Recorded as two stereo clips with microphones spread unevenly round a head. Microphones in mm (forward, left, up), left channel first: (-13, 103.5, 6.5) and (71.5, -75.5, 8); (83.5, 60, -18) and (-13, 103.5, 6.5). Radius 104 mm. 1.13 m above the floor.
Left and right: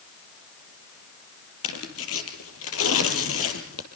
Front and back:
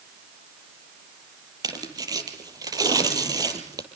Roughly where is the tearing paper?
Left.